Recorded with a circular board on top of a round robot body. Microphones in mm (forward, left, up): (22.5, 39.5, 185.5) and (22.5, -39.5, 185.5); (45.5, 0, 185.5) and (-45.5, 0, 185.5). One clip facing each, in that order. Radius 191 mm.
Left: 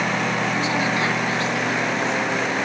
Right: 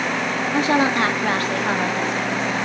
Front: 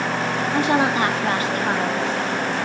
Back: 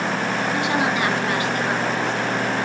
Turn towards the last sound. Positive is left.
turn(degrees=-55)